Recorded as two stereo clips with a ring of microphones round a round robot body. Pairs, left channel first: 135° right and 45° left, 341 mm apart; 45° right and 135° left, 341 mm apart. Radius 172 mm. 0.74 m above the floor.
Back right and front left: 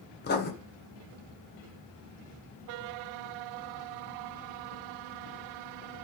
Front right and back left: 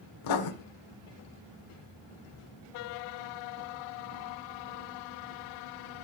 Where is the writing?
70° right, 1.7 m.